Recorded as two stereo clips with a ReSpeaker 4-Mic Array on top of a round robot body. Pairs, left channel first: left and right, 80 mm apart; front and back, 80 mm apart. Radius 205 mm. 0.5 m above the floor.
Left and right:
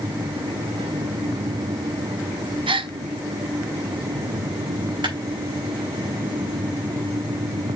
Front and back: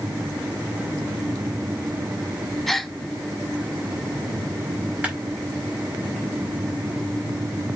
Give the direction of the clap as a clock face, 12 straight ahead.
4 o'clock.